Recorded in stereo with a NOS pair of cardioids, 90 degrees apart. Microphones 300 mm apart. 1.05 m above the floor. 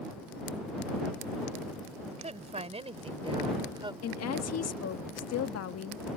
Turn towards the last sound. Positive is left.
turn(degrees=55)